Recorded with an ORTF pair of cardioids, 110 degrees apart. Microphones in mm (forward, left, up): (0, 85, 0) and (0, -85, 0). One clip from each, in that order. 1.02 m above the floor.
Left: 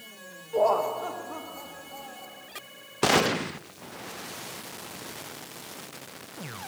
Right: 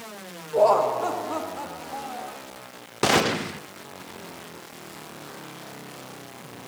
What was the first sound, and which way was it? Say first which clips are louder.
Laughter: right 5 dB; 15° right.